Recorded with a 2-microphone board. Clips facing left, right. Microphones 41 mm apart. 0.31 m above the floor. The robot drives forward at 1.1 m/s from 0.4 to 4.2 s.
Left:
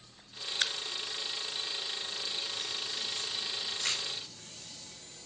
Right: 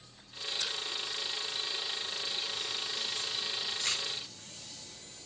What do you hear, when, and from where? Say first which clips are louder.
0.6 s a crack: left 4 dB; 90° left, 0.9 m; by 3.9 s 15° left (ahead or behind), 3.5 m